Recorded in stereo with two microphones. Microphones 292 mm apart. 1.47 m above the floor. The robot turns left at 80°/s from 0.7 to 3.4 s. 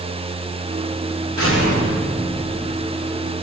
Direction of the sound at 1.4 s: 130° right.